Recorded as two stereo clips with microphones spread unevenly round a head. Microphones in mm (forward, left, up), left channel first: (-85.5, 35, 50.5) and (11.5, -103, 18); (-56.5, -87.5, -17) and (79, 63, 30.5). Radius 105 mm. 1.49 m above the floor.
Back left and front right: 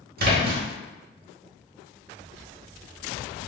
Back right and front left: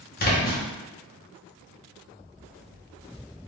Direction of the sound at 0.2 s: 85° right.